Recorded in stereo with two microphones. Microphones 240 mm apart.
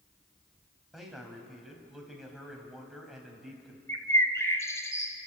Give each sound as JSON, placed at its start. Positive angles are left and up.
{"t": 0.9, "sound": "a man speaking", "side_deg": 0, "distance_m": 3.5}
{"t": 3.9, "sound": "a bird", "side_deg": 10, "distance_m": 1.8}